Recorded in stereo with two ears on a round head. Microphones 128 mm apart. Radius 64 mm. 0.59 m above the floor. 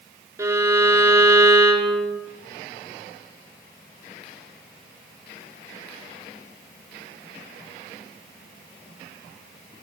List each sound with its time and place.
0.4 s a violin: 20° right (ahead or behind), 1.2 m